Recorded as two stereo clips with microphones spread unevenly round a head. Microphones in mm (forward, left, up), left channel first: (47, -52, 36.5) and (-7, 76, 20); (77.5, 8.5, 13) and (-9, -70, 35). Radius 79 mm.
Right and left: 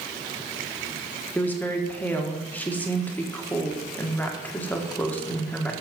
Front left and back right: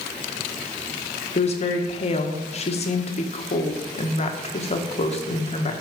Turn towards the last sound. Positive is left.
turn(degrees=10)